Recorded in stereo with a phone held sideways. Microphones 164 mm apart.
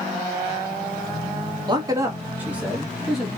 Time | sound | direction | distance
1.7 | a man speaking | 30° right (ahead or behind) | 1.3 m